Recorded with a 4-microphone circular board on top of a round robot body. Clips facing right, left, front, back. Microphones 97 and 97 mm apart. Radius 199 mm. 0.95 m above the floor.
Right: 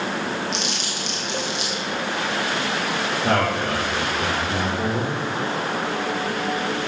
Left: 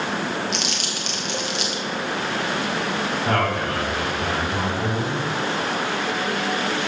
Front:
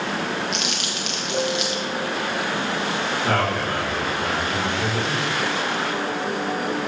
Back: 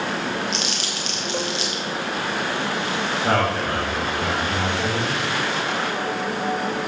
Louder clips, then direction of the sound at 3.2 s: Right 2 dB, back 2 dB; 105° right.